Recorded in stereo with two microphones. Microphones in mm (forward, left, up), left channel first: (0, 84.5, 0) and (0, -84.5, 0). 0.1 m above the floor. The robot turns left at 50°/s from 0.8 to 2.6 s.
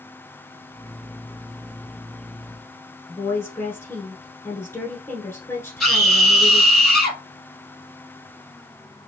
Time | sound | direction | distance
3.1 | a woman speaking | 15° left (ahead or behind) | 1.1 m
5.8 | a scream | 5° left (ahead or behind) | 3 m